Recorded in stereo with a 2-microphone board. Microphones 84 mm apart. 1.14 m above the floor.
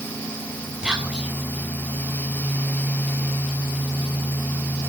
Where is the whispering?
10° right (ahead or behind), 7.5 m.